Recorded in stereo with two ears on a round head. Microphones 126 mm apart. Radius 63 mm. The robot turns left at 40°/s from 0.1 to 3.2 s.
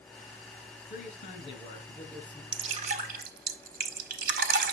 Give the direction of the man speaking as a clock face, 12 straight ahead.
10 o'clock.